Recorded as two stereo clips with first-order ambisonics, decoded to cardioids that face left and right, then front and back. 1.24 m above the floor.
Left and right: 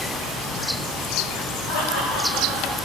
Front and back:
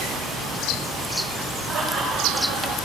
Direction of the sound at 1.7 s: 120° left.